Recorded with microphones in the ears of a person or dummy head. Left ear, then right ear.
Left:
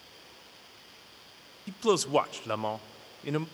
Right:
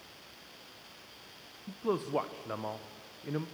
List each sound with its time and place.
1.7 s a man speaking: 85° left, 0.5 m